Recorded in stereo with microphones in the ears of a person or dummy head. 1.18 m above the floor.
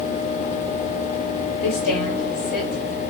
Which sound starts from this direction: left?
A woman speaking, at 1.6 s.